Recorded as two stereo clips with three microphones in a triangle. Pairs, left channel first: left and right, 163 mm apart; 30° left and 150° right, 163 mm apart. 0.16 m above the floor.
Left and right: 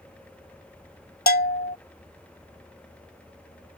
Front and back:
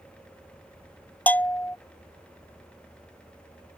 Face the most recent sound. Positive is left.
turn(degrees=110)